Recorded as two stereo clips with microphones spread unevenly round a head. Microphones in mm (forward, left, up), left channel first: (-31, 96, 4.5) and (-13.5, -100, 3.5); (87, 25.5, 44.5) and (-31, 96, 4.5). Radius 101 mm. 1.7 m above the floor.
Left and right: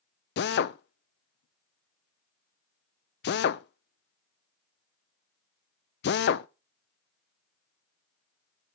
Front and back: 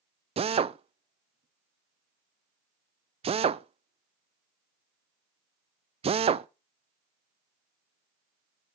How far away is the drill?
About 0.5 m.